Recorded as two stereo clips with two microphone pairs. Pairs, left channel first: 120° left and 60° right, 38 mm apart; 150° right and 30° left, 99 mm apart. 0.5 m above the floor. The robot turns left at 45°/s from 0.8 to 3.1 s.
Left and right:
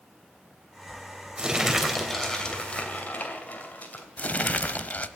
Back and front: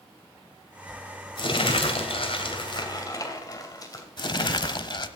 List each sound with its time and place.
1.4 s crumpling: 120° right, 2.5 m; by 4.0 s 165° left, 2.5 m
4.2 s crumpling: 170° left, 0.7 m